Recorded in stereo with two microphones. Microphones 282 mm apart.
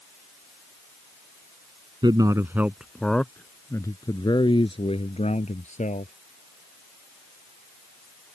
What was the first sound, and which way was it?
A man speaking, 15° right (ahead or behind).